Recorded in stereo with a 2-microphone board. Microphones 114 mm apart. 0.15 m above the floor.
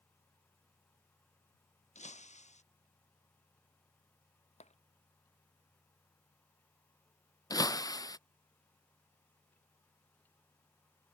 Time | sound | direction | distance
1.9 | breaking glass | 85° left | ?
4.6 | tapping | 75° left (ahead or behind) | ?
7.5 | breaking glass | 35° left (ahead or behind) | ?